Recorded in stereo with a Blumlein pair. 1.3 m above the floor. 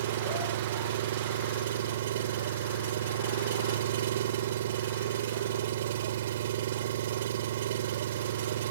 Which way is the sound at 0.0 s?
60° right.